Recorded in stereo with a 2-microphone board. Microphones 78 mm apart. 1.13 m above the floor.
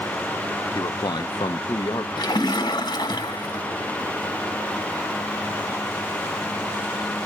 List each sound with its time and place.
0.8 s a man speaking: 60° left (ahead or behind), 0.7 m
2.2 s a splash: 70° left (ahead or behind), 1.7 m